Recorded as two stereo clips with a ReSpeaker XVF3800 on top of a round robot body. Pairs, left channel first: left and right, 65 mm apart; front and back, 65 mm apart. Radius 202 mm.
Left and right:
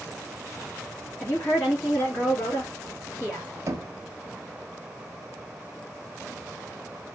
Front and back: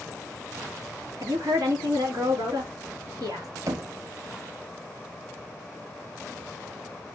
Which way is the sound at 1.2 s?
155° left.